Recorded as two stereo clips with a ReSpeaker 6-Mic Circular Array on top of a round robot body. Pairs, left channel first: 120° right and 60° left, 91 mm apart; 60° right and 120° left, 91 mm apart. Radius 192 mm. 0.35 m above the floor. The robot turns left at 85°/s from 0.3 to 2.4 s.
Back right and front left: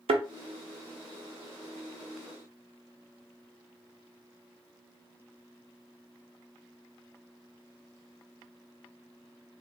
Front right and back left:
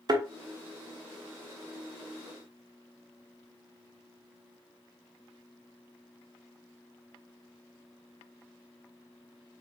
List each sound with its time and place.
0.1 s a thud: 70° left, 0.6 m